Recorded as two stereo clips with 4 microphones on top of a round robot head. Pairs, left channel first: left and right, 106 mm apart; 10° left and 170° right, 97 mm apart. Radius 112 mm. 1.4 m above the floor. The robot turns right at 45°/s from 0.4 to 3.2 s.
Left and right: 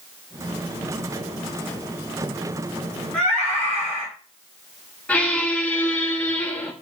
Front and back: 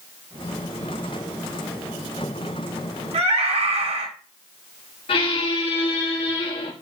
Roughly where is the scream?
Behind.